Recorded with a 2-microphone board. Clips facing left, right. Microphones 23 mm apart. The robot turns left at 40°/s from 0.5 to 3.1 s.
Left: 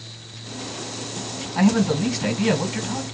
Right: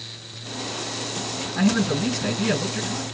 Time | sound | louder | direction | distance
1.6 | a man speaking | left 3 dB | 150° left | 2 m